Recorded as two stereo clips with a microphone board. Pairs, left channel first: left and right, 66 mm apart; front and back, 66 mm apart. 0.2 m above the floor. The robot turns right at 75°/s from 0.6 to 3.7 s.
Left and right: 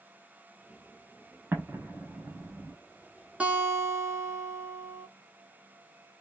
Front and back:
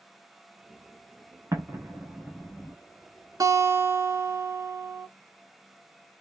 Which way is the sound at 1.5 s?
145° right.